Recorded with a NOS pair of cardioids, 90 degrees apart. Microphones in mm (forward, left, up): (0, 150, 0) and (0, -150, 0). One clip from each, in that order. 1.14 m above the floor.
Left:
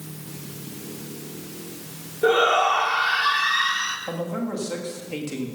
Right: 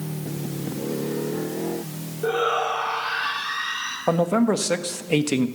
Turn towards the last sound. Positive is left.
turn(degrees=-65)